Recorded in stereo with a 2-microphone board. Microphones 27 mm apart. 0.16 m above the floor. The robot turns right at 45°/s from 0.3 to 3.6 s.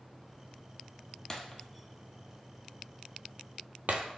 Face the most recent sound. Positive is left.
turn(degrees=-75)  # may be behind; listen again after turning